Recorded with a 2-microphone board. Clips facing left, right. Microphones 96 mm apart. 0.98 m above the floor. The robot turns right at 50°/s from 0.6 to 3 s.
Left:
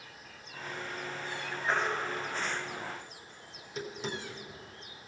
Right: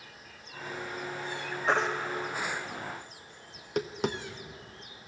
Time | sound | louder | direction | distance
1.7 | a baby crying | right 4 dB | 75° right (ahead or behind) | 1.1 m
3.5 | tapping | right 9 dB | 65° right (ahead or behind) | 0.7 m